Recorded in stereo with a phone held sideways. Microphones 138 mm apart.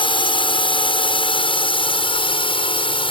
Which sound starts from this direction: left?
A drone, at 0.0 s.